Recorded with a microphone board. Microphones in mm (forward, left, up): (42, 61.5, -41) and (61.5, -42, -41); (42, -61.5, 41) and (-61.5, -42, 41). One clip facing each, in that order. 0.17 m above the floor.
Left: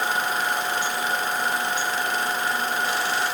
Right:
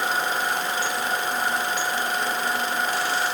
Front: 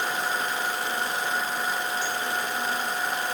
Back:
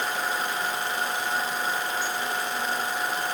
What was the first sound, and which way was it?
Only background noise.